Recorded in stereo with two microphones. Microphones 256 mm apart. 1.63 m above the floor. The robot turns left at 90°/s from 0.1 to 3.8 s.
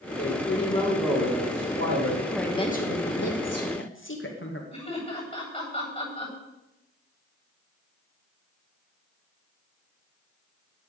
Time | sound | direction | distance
0.2 | a man speaking | 75° left | 4.5 m
2.3 | a woman speaking | 175° right | 2.5 m
4.7 | laughter | 25° left (ahead or behind) | 9.5 m